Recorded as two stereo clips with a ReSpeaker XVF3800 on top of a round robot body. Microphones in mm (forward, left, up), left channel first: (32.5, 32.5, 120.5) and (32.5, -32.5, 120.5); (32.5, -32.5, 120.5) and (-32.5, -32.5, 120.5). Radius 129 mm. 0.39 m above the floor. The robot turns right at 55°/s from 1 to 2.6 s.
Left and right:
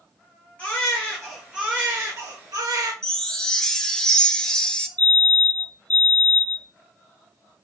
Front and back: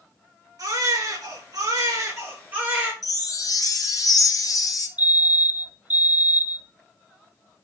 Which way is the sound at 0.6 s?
160° left.